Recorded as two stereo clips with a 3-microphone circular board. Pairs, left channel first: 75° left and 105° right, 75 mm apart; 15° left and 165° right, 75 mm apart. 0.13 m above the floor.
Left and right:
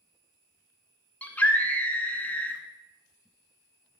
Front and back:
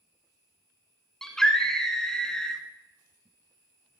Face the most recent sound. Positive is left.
turn(degrees=80)